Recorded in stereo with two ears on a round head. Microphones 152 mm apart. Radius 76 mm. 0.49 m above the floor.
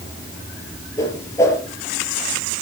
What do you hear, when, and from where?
1.0 s a whoosh: 15° left (ahead or behind), 5 m